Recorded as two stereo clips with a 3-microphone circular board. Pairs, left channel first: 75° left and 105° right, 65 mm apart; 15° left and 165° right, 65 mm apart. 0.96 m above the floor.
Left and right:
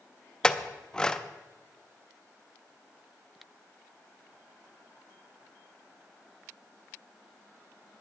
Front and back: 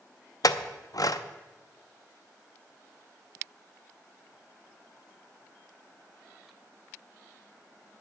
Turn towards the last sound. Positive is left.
turn(degrees=-5)